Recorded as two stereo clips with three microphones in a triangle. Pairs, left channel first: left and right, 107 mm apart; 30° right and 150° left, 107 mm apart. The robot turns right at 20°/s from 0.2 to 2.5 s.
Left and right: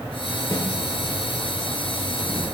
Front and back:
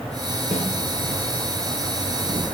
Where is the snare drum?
150° left, 8.5 m; by 0.7 s 155° left, 8.5 m.